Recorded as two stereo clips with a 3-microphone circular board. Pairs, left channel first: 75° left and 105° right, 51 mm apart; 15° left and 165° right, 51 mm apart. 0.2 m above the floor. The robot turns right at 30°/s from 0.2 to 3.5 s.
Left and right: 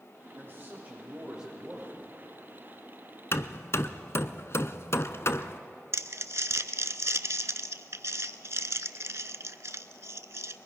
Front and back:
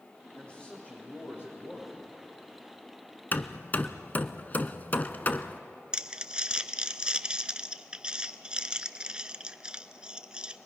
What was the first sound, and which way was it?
A man speaking, 60° right.